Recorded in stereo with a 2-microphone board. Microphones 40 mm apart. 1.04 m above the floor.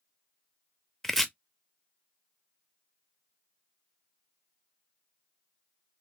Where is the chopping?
5° left (ahead or behind), 0.6 m.